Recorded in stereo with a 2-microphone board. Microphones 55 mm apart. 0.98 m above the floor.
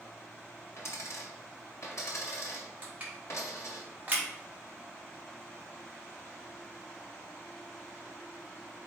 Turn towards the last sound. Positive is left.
turn(degrees=-30)  # may be behind; listen again after turning